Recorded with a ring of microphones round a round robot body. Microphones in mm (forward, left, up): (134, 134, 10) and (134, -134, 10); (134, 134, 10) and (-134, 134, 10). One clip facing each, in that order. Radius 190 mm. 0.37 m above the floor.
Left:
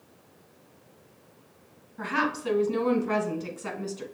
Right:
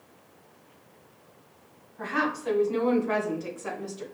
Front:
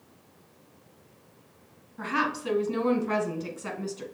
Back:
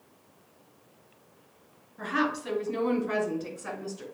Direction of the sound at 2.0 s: 55° left.